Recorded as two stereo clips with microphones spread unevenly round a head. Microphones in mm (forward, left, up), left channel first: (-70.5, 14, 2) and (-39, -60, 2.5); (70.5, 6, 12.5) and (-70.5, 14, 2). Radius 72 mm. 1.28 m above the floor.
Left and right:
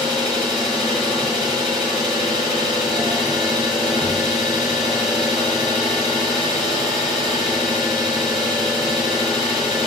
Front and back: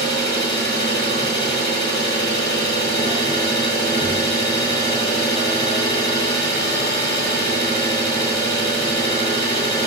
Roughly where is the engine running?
Ahead left.